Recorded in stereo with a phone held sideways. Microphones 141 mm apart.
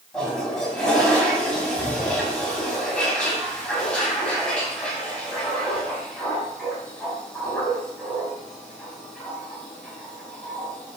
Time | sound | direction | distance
0.1 | a toilet flushing | 5° left (ahead or behind) | 5.5 m